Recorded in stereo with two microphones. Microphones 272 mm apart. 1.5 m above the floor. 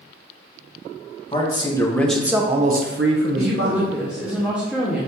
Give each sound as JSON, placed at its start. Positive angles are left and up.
{"t": 1.3, "sound": "a man speaking", "side_deg": 20, "distance_m": 1.1}
{"t": 3.4, "sound": "a woman speaking", "side_deg": -5, "distance_m": 0.8}